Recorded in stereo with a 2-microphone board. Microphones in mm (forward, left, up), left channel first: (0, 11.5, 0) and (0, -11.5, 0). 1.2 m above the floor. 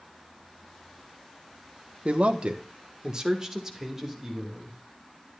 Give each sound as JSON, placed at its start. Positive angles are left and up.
{"t": 2.0, "sound": "a man speaking", "side_deg": -60, "distance_m": 1.1}